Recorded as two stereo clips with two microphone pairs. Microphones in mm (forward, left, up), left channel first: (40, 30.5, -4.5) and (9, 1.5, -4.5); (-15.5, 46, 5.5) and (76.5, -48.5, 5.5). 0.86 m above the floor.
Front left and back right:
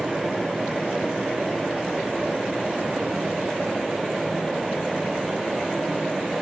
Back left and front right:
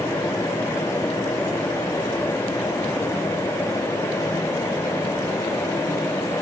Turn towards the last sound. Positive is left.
No sound to turn to.